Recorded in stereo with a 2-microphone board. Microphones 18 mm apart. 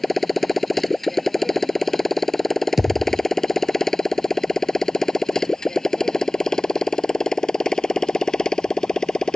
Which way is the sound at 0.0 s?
5° left (ahead or behind).